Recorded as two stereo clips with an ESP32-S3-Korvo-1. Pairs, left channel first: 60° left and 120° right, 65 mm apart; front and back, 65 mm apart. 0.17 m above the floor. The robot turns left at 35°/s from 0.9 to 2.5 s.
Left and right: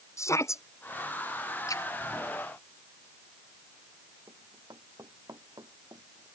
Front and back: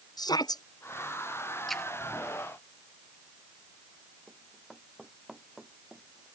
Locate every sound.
0.2 s a shout: 15° left
1.7 s a splash: 90° left; by 1.8 s 80° left
4.3 s running footsteps: 95° right; by 6.3 s 100° right